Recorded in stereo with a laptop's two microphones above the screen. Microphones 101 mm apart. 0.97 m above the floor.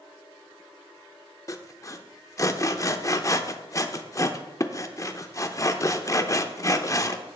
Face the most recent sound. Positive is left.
turn(degrees=35)  # may be behind; listen again after turning